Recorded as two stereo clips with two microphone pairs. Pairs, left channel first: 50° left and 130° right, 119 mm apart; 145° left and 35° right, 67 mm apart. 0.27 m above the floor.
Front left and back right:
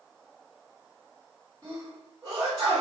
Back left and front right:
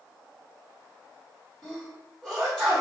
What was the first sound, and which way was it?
A sneeze, 140° right.